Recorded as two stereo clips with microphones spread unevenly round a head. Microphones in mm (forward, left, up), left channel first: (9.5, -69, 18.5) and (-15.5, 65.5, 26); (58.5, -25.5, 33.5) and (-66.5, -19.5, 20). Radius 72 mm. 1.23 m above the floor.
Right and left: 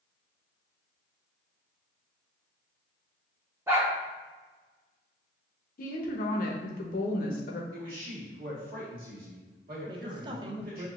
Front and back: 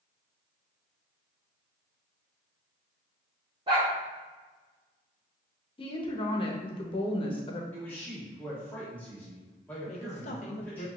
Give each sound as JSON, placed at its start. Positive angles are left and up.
{"t": 3.7, "sound": "a dog barking", "azimuth_deg": 150, "distance_m": 0.8}
{"t": 5.8, "sound": "a woman speaking", "azimuth_deg": -55, "distance_m": 0.8}
{"t": 7.7, "sound": "a man speaking", "azimuth_deg": 80, "distance_m": 1.5}
{"t": 9.9, "sound": "a woman speaking", "azimuth_deg": 40, "distance_m": 0.6}